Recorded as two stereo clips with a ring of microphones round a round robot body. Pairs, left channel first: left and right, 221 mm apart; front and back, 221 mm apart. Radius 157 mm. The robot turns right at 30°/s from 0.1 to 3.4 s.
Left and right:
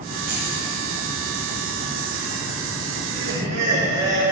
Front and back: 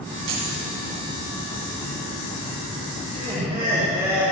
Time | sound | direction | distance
0.3 | keys jangling | 150° right | 2.5 m
3.0 | laughter | 115° right | 4.5 m